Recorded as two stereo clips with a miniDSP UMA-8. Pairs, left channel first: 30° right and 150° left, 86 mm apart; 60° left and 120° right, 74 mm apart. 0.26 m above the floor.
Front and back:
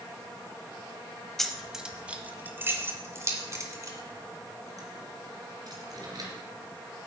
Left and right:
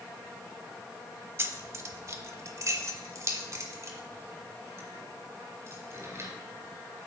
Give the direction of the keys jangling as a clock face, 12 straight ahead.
4 o'clock.